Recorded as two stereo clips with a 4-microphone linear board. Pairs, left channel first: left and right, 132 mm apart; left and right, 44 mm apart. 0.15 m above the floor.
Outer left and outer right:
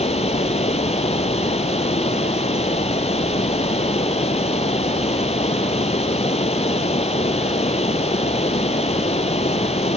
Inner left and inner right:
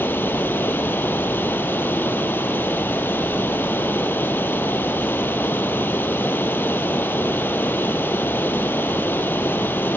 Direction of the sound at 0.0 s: 55° left (ahead or behind).